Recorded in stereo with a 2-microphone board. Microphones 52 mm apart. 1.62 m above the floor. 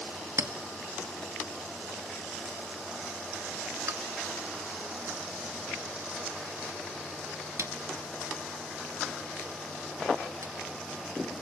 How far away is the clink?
About 1.8 m.